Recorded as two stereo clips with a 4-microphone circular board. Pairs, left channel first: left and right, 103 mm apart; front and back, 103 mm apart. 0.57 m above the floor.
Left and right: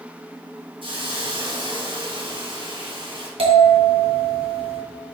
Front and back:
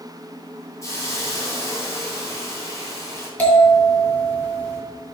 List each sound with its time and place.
0.8 s a hiss: 60° right, 2.5 m
3.4 s a bell: 75° right, 3 m